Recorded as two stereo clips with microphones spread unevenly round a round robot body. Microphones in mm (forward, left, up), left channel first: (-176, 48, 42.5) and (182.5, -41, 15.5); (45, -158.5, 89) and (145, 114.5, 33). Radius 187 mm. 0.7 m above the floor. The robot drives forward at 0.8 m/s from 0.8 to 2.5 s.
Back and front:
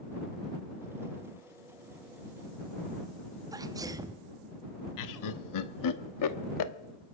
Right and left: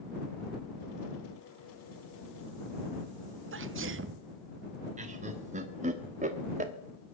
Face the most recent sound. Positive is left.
turn(degrees=130)